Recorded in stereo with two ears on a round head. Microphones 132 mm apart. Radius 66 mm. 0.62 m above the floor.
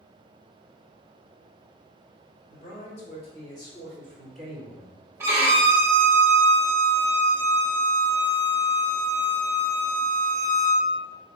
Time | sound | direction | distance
2.5 | a man speaking | 55° left (ahead or behind) | 2.0 m
5.2 | a violin | 15° right (ahead or behind) | 0.8 m